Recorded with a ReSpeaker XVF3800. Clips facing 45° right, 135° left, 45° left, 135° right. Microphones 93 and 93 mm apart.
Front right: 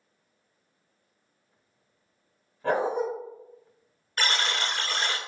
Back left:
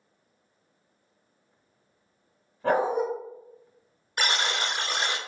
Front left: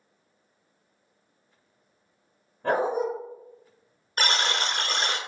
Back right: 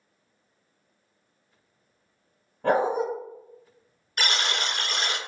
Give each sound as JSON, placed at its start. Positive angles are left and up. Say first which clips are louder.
{"t": 2.6, "sound": "a dog barking", "louder": "back left 2 dB, back right 2 dB", "azimuth_deg": -155, "distance_m": 1.9}
{"t": 4.2, "sound": "a buzzer", "louder": "back left 1 dB, front left 2 dB", "azimuth_deg": 70, "distance_m": 0.6}